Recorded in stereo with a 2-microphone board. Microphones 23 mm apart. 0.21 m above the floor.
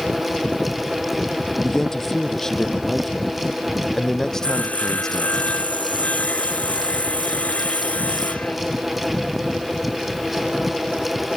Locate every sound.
1.6 s a man speaking: 15° left (ahead or behind); by 5.4 s 25° left (ahead or behind)
4.4 s sawing: 85° left